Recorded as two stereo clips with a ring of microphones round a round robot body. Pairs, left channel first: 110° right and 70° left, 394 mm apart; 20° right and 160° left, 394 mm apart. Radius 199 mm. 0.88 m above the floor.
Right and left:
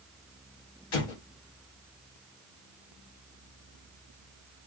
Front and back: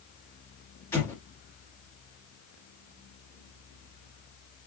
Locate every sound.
0.9 s an explosion: 105° right, 1.0 m